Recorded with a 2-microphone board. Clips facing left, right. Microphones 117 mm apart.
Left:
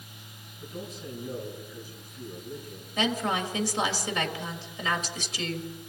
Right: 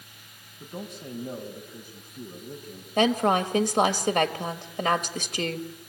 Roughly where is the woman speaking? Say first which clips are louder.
Right 6 dB; right.